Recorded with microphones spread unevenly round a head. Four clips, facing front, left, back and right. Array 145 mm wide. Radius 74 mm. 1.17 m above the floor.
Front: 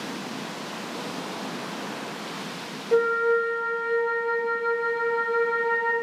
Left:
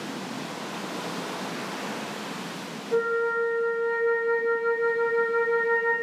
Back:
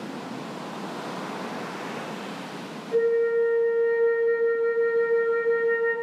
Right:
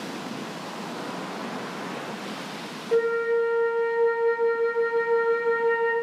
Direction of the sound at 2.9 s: 5° right.